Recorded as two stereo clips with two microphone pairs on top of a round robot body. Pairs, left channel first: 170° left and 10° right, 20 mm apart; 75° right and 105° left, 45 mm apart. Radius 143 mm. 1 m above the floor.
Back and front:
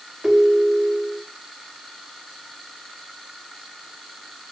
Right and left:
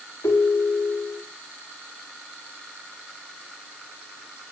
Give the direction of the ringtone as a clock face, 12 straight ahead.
3 o'clock.